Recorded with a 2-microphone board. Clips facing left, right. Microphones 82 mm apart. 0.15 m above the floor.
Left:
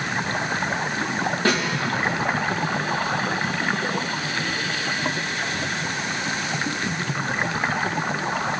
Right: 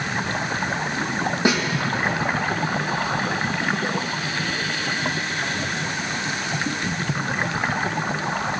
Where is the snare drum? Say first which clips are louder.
Right 1 dB; 15° right (ahead or behind), 3 m.